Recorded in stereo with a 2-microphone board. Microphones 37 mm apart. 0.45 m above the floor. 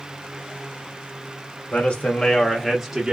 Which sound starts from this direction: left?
A man speaking, at 1.7 s.